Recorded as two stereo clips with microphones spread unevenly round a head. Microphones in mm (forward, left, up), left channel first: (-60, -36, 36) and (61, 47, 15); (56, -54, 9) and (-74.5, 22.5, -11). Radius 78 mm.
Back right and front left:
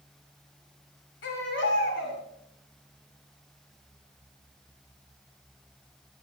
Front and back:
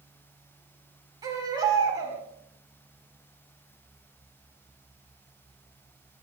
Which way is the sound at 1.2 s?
145° right.